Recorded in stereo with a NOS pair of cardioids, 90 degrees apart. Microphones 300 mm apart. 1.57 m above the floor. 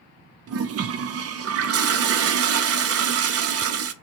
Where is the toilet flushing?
55° right, 0.7 m.